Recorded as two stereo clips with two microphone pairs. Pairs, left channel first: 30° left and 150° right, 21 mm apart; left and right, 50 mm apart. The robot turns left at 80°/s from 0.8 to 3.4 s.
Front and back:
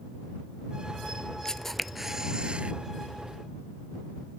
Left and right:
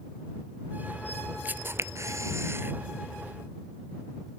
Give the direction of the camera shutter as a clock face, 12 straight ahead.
1 o'clock.